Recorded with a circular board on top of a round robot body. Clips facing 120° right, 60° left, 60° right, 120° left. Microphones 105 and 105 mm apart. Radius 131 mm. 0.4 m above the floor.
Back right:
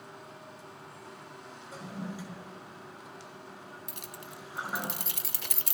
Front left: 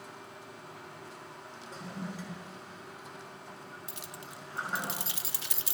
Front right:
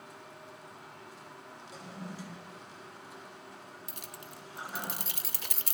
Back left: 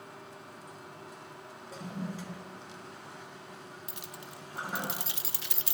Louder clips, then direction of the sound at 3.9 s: Even, back left 2 dB; 95° right.